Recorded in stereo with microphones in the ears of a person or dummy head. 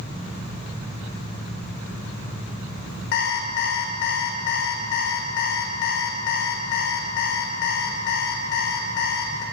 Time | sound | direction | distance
3.1 | an alarm clock | 65° left (ahead or behind) | 2.0 m